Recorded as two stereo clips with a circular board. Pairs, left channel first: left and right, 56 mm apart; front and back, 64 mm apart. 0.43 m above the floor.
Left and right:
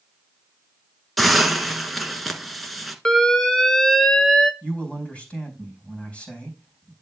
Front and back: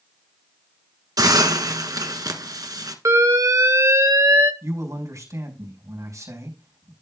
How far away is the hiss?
About 1.3 m.